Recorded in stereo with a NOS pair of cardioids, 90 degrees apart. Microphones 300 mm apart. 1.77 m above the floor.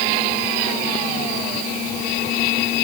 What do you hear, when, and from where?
Only background noise.